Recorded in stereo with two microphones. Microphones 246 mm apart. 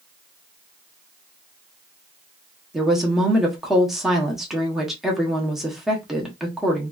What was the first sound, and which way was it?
A woman speaking, centre (ahead or behind).